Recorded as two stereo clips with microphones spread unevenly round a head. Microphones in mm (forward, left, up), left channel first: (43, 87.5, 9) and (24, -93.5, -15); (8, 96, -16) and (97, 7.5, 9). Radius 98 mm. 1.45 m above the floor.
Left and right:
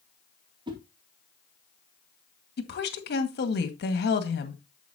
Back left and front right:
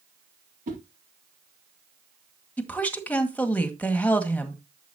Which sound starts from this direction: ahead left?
A woman speaking, at 2.6 s.